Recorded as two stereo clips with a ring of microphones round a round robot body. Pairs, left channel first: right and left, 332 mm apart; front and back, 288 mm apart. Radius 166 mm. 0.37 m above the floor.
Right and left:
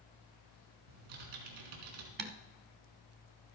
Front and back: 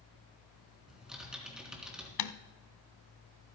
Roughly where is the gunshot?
No gunshot in this recording.